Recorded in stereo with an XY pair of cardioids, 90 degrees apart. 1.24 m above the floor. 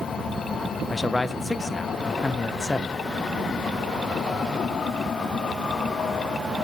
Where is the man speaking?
15° left, 0.5 m.